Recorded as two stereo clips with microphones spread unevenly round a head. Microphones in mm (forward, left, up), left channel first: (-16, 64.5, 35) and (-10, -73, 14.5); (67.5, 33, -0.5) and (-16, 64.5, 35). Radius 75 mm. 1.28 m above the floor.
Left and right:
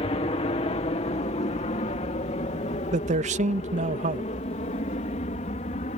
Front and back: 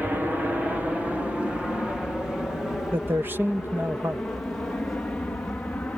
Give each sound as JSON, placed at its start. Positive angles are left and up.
{"t": 0.0, "sound": "an aircraft", "azimuth_deg": 70}
{"t": 2.9, "sound": "a man speaking", "azimuth_deg": -120}